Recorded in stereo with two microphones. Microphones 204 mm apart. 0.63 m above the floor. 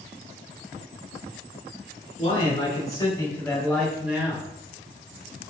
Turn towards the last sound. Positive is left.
turn(degrees=-15)  # may be behind; listen again after turning